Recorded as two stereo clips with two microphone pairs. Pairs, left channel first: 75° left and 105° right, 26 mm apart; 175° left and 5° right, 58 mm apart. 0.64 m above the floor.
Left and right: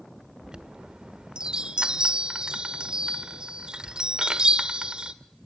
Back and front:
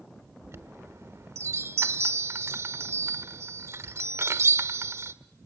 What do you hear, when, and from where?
0.4 s a chime: 45° right, 1.1 m